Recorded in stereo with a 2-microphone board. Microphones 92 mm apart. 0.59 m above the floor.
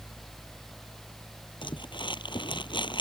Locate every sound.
1.6 s crumpling: 60° left (ahead or behind)